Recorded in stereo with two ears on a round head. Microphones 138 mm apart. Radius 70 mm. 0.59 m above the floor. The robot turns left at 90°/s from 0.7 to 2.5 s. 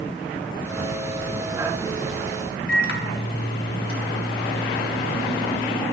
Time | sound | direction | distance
2.7 | a microwave | 65° left (ahead or behind) | 1.5 m